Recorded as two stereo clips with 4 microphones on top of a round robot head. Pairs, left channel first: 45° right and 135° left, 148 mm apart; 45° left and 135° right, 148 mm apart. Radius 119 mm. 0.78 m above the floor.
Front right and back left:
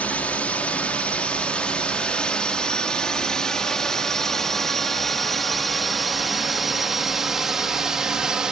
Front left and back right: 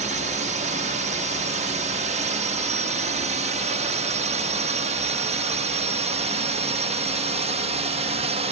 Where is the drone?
120° right; by 8.5 s 140° right.